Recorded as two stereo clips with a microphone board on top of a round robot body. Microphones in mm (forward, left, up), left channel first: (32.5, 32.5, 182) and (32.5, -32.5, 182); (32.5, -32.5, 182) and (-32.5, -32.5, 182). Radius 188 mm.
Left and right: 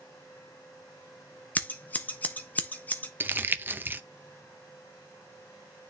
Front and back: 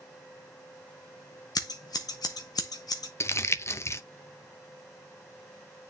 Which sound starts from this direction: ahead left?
Scissors, at 1.6 s.